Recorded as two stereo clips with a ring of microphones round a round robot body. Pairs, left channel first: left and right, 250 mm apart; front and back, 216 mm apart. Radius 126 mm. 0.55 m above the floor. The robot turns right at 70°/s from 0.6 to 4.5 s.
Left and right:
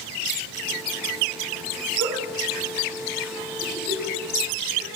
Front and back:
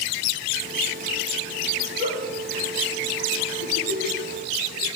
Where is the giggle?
120° right, 7.5 m; by 4.9 s 55° left, 7.5 m.